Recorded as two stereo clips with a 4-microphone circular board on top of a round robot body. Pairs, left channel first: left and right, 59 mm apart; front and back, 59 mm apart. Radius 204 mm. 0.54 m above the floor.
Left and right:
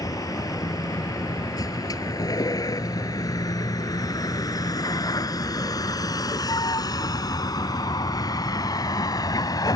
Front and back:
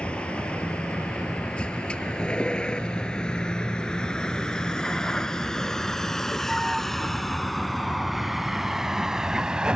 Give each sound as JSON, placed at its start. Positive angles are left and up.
{"t": 0.0, "sound": "a vehicle", "azimuth_deg": 70}